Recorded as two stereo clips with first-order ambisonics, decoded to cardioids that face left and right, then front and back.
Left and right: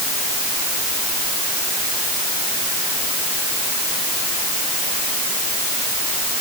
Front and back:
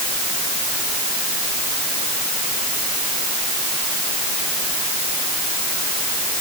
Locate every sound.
Only background noise.